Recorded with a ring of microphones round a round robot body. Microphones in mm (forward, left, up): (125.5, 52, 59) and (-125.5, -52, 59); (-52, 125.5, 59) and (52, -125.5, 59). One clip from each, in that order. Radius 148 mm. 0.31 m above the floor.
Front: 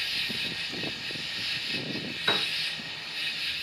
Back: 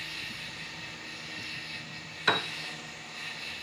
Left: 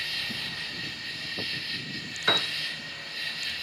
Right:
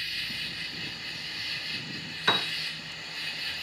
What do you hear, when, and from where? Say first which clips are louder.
0.0 s an insect: front 8 dB, left 1 dB; 25° left, 3.5 m
2.3 s a piano: front 1 dB, left 1 dB; 135° right, 0.9 m